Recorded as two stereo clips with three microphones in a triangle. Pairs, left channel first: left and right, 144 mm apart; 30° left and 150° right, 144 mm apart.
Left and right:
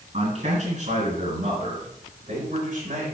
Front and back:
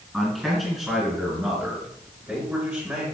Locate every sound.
0.1 s a man speaking: 65° right, 4.5 m; by 3.0 s 80° right, 5.5 m